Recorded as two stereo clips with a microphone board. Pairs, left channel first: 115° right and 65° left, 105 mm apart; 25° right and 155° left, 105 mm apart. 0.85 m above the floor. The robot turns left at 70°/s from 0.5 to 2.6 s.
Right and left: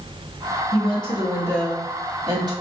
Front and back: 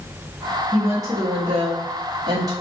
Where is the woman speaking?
130° right, 2.5 m; by 2.5 s 105° left, 2.5 m.